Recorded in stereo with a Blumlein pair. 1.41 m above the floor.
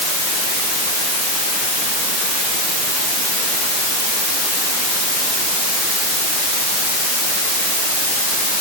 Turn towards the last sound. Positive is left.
No sound to turn to.